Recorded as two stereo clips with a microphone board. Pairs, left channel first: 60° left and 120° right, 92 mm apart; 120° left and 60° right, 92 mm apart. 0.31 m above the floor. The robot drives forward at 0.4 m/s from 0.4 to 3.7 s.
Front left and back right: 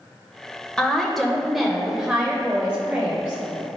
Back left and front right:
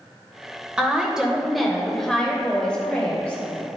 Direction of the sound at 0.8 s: 10° right.